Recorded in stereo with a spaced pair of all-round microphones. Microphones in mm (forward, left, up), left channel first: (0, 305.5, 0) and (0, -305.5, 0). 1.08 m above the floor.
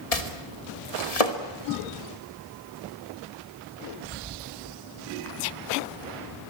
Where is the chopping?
75° left (ahead or behind), 2 m.